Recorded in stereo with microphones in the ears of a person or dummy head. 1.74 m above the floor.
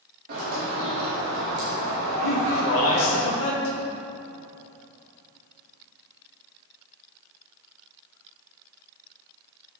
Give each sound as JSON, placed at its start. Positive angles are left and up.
{"t": 0.3, "sound": "a bird", "side_deg": -55, "distance_m": 2.5}
{"t": 2.2, "sound": "a man speaking", "side_deg": 85, "distance_m": 1.4}